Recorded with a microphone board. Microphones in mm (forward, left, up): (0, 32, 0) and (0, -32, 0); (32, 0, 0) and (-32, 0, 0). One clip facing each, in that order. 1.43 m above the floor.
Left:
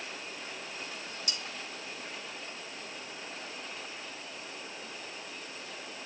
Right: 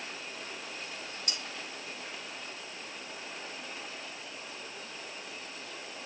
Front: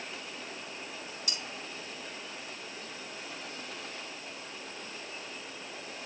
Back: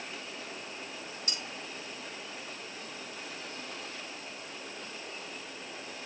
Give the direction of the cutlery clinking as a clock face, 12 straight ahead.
4 o'clock.